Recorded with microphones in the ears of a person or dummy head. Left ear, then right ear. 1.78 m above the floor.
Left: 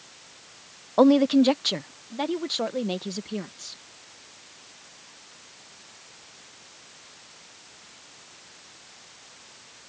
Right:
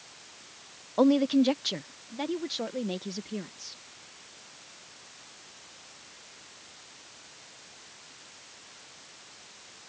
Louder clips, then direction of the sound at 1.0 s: Left 5 dB; 25° left (ahead or behind).